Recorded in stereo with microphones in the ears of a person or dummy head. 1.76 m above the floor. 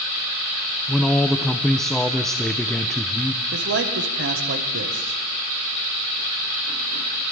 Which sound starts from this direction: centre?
A man speaking, at 0.9 s.